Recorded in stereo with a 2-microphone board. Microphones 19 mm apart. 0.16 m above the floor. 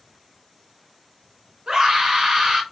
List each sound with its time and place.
1.7 s a scream: 45° right (ahead or behind), 2 m